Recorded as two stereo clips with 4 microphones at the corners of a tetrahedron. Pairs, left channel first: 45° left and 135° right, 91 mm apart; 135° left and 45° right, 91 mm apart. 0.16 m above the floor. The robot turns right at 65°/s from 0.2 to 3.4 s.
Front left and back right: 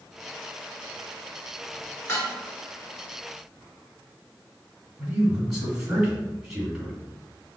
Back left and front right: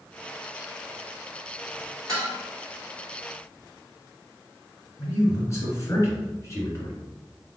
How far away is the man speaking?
About 1.8 m.